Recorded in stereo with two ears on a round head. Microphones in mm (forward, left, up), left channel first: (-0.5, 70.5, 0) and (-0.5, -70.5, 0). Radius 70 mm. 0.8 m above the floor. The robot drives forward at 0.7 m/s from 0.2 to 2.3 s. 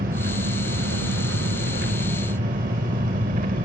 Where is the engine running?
55° right (ahead or behind), 1.3 m.